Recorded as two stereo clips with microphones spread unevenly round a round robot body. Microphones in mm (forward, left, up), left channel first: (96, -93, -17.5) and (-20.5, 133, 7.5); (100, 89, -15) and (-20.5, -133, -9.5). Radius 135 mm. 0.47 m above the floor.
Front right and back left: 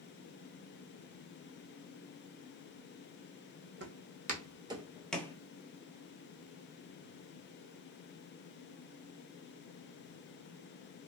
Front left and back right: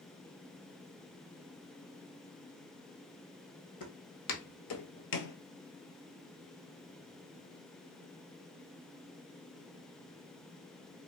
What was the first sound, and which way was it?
Footsteps, 75° left.